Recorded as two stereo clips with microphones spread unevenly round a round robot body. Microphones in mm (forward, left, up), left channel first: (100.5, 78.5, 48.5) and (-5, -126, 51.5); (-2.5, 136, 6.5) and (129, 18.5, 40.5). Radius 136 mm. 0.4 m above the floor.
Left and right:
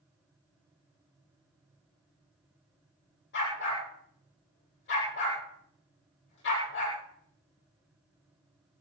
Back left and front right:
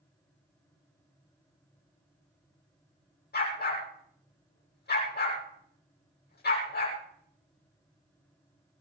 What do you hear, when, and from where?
3.3 s a dog barking: 110° left, 7 m